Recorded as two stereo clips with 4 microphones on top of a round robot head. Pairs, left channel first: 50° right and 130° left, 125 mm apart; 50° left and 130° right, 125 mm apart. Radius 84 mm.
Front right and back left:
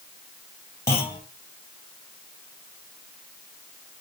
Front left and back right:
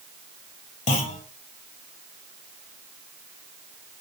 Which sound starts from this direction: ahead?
A clunk, at 0.9 s.